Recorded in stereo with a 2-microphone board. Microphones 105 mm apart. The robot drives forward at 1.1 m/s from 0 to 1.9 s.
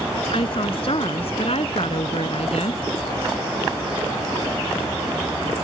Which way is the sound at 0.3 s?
60° left (ahead or behind).